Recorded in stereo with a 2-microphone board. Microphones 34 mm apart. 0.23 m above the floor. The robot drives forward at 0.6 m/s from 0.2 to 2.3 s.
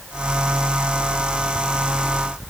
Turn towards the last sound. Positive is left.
No sound to turn to.